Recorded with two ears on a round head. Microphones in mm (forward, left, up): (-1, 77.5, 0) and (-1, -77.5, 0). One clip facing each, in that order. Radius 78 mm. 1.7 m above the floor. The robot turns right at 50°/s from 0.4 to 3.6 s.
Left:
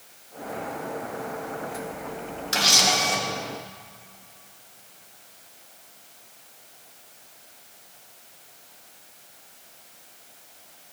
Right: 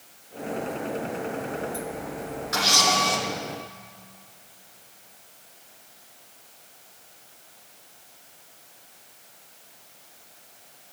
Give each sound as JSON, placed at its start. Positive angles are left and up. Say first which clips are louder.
{"t": 2.5, "sound": "a camera shutter", "louder": "right 1 dB", "azimuth_deg": 145, "distance_m": 2.0}